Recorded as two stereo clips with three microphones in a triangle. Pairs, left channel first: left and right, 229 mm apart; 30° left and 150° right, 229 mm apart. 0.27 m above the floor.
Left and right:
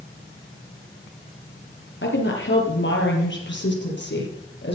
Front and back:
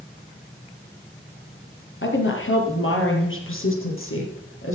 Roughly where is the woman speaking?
Ahead left.